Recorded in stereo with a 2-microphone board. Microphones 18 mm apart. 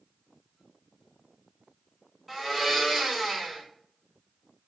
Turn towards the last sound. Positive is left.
turn(degrees=10)  # may be behind; listen again after turning